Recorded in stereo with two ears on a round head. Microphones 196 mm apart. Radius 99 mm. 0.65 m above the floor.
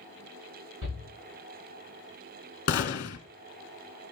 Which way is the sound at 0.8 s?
75° right (ahead or behind).